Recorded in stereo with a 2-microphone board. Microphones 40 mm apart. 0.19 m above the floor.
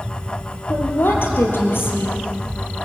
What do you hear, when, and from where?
0.7 s a woman speaking: 70° left (ahead or behind), 4 m